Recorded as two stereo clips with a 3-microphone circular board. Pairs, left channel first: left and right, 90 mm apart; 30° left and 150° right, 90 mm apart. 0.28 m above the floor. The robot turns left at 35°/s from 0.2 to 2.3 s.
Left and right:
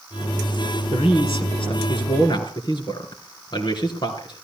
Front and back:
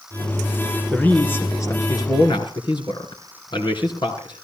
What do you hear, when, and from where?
0.9 s a man speaking: 110° left, 3.5 m; by 4.4 s 60° left, 3.5 m